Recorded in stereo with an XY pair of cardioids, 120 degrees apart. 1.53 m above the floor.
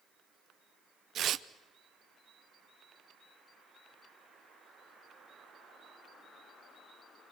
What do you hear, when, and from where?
1.1 s tearing paper: 55° right, 0.7 m